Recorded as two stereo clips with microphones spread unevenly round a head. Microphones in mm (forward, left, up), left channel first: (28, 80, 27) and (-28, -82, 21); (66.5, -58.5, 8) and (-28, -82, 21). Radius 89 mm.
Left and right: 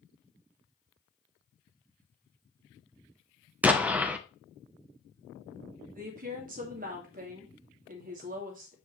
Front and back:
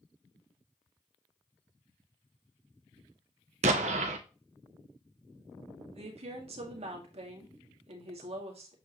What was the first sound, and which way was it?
An explosion, 170° left.